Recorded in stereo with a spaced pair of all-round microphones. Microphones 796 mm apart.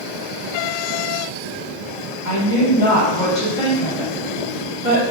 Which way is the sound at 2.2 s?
30° left (ahead or behind).